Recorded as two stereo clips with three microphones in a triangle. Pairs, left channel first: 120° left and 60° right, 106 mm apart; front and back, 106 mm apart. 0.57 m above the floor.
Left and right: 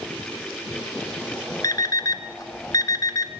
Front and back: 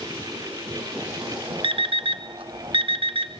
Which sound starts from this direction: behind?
An alarm clock, at 1.6 s.